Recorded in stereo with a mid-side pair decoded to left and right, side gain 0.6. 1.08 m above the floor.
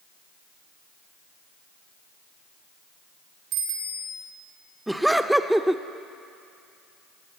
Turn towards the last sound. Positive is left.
turn(degrees=-5)